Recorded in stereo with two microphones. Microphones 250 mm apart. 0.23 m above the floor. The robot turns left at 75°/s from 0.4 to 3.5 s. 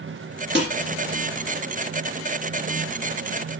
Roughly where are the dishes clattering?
Right.